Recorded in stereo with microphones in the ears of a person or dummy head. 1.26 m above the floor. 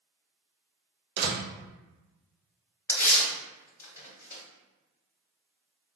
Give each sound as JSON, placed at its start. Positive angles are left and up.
{"t": 1.2, "sound": "a door slam", "side_deg": -55, "distance_m": 0.5}
{"t": 2.9, "sound": "tearing paper", "side_deg": 20, "distance_m": 1.3}